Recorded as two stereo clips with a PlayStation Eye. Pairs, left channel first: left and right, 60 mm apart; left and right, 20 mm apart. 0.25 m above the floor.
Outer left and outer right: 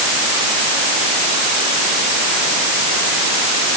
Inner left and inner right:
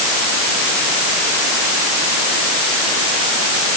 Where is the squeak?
No squeak in this recording.